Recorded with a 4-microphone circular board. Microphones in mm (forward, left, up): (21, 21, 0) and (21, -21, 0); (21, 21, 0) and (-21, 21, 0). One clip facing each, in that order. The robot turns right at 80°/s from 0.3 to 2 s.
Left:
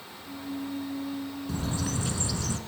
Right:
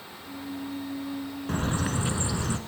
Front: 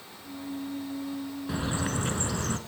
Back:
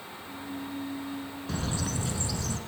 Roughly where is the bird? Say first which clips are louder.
Right 5 dB, front 2 dB; right.